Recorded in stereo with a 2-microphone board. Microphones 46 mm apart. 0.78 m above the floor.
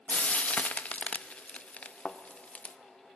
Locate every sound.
0.1 s frying: 30° left (ahead or behind), 0.6 m
2.0 s a thud: 15° left (ahead or behind), 0.7 m